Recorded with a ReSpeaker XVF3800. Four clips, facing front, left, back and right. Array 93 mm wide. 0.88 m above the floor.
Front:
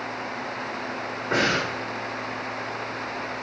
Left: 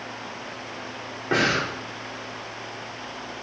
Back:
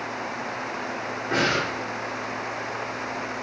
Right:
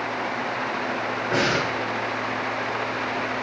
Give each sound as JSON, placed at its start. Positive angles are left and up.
{"t": 1.3, "sound": "breathing", "azimuth_deg": 85, "distance_m": 2.5}